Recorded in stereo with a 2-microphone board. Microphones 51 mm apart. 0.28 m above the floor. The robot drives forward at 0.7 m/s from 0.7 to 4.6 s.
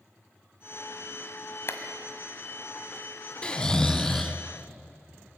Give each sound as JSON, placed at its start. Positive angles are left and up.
{"t": 1.7, "sound": "a clap", "side_deg": 50, "distance_m": 1.5}
{"t": 3.4, "sound": "snoring", "side_deg": 25, "distance_m": 0.5}